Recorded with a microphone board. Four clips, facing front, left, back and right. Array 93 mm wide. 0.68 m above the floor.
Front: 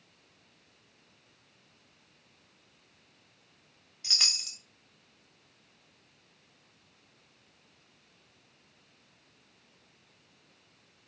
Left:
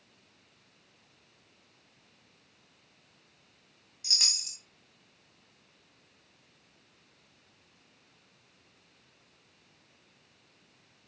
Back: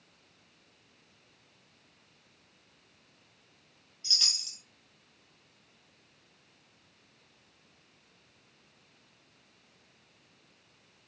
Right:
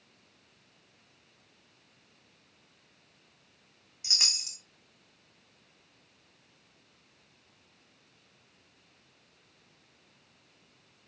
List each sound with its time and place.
4.0 s a chime: 25° right, 2.0 m